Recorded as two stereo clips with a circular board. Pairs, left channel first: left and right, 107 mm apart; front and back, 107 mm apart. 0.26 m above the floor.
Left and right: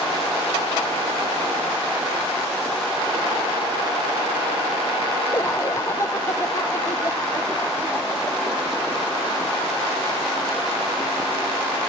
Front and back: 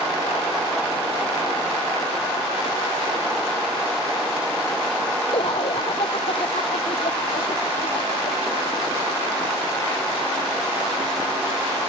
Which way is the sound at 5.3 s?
30° left.